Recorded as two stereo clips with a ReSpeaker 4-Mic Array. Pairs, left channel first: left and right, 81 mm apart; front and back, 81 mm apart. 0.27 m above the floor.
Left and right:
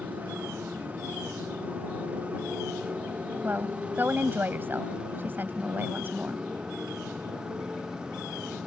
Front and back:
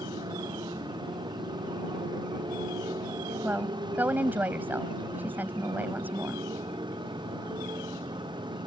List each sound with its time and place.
0.0 s a motorcycle: 160° right; by 8.7 s 170° right
3.4 s a woman speaking: 130° right